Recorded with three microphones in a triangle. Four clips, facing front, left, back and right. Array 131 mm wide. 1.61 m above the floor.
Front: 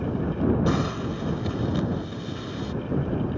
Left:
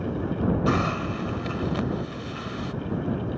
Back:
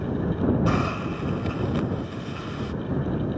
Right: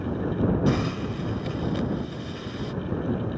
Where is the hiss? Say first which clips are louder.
Left 1 dB, even; 110° left.